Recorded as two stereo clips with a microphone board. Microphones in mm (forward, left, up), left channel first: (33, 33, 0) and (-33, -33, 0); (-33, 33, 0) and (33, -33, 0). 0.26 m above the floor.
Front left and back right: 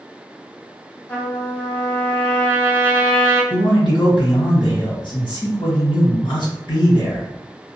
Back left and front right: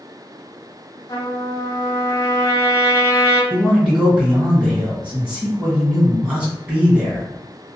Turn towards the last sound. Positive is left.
turn(degrees=35)